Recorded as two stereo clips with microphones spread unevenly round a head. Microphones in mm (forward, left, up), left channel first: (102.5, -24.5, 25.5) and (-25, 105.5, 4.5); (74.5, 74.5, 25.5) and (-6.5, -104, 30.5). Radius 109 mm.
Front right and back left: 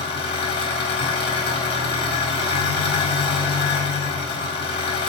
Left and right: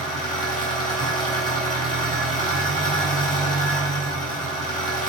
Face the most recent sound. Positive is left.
turn(degrees=15)